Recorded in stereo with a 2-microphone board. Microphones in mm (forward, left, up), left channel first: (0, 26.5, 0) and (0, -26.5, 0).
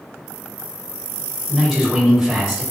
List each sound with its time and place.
1.5 s a man speaking: 10° right (ahead or behind), 1.3 m